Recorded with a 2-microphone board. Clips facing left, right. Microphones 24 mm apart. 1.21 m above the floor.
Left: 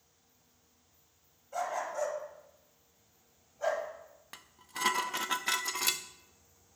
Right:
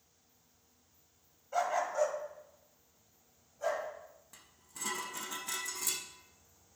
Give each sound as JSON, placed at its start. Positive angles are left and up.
{"t": 1.5, "sound": "a dog barking", "side_deg": -20, "distance_m": 1.9}
{"t": 4.3, "sound": "dishes clattering", "side_deg": 55, "distance_m": 0.7}